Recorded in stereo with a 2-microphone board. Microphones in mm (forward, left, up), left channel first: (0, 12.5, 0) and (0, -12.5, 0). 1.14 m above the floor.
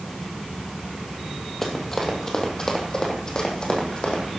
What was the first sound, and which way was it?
Running footsteps, 20° left (ahead or behind).